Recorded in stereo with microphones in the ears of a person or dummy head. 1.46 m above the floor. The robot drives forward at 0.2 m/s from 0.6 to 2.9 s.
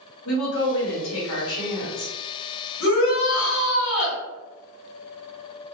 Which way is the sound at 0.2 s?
75° left (ahead or behind).